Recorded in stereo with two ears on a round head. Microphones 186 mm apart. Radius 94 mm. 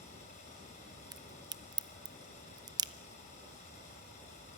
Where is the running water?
35° left (ahead or behind), 8 m.